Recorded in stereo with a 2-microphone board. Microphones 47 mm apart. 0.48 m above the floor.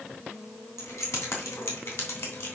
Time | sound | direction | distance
0.8 | keys jangling | 80° left | 2.5 m